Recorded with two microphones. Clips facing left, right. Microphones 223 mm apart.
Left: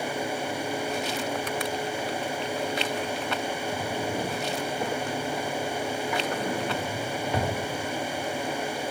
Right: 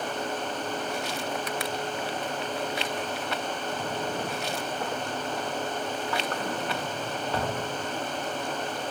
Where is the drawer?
15° left (ahead or behind), 1.0 m.